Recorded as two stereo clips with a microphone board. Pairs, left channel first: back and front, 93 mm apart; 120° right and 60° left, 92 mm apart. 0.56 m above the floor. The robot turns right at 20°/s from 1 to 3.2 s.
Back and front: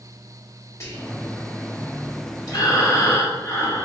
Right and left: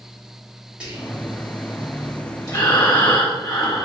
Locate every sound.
0.8 s whispering: 135° left, 1.5 m; by 1.2 s 140° left, 1.5 m
2.5 s breathing: 155° right, 1.3 m; by 3.9 s 140° right, 1.3 m